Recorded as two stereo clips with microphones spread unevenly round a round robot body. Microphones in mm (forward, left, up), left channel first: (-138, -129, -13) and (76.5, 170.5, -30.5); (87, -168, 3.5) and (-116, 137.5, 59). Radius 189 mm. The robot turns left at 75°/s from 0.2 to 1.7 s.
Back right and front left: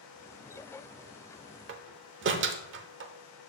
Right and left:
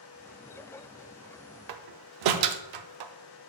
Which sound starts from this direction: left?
A door slam, at 1.7 s.